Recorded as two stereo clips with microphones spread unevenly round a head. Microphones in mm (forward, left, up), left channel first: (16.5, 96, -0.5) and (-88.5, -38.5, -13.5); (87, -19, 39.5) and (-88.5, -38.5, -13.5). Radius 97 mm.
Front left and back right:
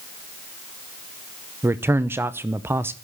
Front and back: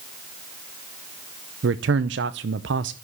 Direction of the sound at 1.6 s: 155° left.